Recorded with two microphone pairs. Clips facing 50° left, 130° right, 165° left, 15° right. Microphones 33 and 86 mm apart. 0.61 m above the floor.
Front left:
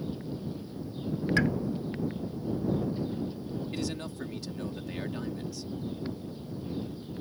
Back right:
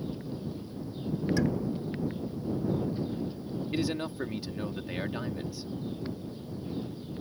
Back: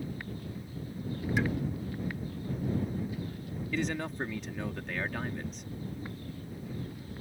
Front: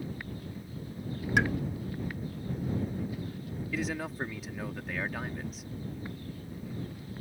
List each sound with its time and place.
1.4 s a pop: 15° left
3.7 s a man speaking: 95° right